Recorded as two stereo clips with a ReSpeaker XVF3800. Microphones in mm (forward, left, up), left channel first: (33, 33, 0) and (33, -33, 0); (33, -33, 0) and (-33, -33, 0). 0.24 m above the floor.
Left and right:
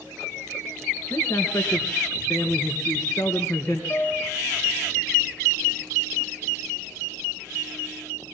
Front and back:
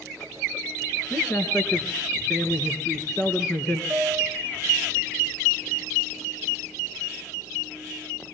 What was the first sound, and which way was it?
A man speaking, 55° left.